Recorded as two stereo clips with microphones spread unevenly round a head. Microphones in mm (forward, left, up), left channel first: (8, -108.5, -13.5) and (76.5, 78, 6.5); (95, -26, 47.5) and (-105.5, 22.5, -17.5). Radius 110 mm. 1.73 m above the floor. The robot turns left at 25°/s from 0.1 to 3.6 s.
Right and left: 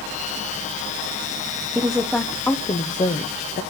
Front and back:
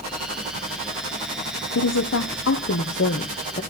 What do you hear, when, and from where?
1.8 s a woman speaking: 10° right, 1.0 m; by 3.6 s 60° right, 1.0 m